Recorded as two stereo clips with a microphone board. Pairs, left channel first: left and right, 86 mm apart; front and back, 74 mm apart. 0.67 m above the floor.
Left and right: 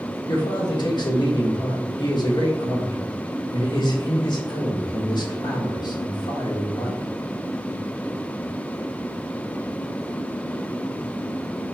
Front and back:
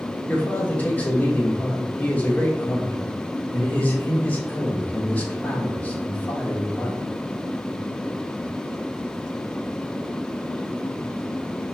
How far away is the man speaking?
About 1.4 m.